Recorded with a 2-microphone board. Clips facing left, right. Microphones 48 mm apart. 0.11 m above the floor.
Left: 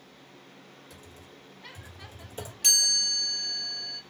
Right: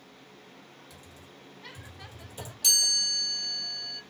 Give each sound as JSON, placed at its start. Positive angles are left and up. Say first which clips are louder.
{"t": 0.9, "sound": "typing on a keyboard", "louder": "left 1 dB", "side_deg": 30, "distance_m": 3.0}
{"t": 2.6, "sound": "a chime", "louder": "left 1 dB", "side_deg": 40, "distance_m": 3.0}